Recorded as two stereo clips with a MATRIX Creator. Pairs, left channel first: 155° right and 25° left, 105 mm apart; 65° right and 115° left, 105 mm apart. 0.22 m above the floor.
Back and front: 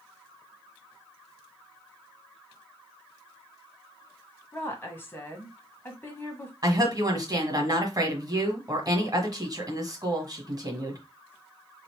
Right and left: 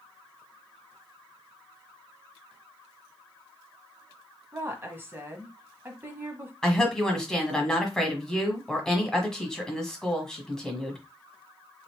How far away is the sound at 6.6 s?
About 1.3 m.